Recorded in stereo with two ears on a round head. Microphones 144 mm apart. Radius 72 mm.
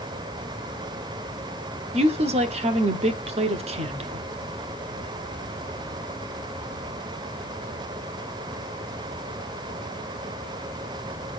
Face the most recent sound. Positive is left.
turn(degrees=-40)  # may be behind; listen again after turning